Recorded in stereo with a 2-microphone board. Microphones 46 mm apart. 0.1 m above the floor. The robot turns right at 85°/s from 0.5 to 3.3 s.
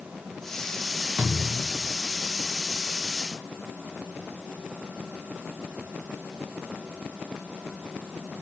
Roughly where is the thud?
Ahead right.